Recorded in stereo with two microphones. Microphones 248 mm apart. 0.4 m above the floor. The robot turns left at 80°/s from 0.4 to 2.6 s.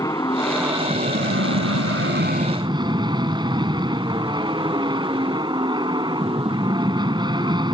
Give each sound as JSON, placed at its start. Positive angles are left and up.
{"t": 0.0, "sound": "an aircraft", "azimuth_deg": 15}